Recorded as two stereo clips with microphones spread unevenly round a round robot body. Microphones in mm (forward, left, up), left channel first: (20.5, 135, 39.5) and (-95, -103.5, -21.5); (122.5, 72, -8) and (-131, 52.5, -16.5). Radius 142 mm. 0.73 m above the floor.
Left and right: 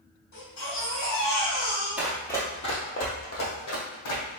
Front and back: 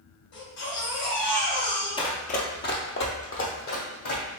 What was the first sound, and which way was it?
A baby crying, 25° left.